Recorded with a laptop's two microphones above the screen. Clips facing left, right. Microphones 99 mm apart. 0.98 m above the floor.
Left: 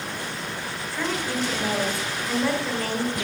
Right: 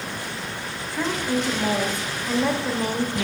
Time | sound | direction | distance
0.9 | a woman speaking | 20° right (ahead or behind) | 1.3 m